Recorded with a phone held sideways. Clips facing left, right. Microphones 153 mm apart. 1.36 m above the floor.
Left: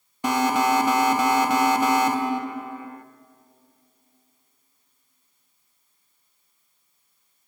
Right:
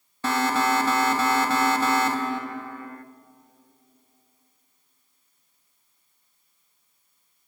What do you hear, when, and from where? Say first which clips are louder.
0.2 s an alarm: left 2 dB; 15° left (ahead or behind), 1.0 m